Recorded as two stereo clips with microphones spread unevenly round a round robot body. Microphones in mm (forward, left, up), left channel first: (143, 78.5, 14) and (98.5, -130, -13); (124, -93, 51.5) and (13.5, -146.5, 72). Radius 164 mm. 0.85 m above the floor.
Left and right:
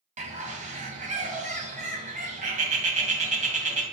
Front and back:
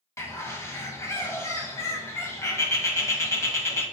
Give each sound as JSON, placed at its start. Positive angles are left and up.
{"t": 0.2, "sound": "a bird", "azimuth_deg": -45, "distance_m": 1.1}